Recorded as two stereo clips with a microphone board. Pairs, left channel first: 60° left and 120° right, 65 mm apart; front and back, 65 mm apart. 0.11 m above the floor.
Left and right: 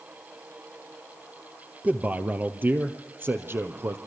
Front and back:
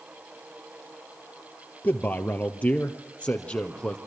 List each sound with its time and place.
1.8 s a man speaking: 55° right, 2 m; by 4.0 s 70° right, 3 m